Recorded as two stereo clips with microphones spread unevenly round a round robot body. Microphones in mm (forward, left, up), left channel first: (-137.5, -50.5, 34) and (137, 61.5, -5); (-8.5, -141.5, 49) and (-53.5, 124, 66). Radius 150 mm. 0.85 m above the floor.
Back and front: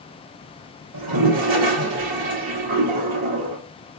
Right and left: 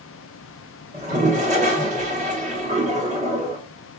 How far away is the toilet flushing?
About 1.2 m.